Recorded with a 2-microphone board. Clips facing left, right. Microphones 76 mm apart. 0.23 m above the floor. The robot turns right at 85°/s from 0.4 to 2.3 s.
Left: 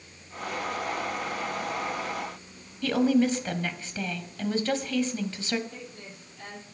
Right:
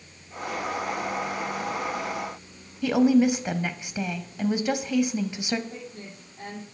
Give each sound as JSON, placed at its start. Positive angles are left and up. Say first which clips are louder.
{"t": 2.8, "sound": "a woman speaking", "louder": "right 3 dB", "side_deg": -15, "distance_m": 0.9}
{"t": 5.7, "sound": "a woman speaking", "louder": "right 3 dB", "side_deg": -30, "distance_m": 7.5}